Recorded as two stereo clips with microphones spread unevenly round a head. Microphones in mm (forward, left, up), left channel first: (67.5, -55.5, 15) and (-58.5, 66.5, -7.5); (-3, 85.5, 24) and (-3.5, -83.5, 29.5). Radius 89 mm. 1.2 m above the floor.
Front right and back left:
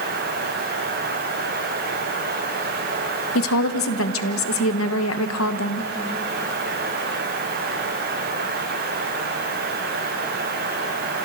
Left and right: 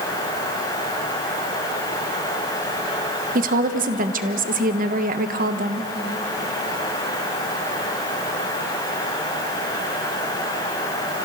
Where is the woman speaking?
50° right, 1.2 m.